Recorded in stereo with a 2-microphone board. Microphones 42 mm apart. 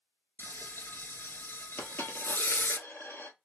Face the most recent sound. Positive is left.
turn(degrees=65)  # may be behind; listen again after turning